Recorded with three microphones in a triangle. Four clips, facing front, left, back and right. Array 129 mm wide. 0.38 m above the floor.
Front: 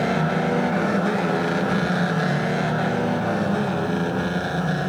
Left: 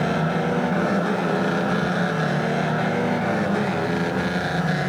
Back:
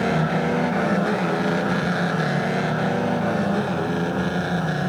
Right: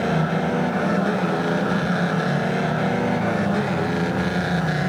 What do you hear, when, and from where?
Only background noise.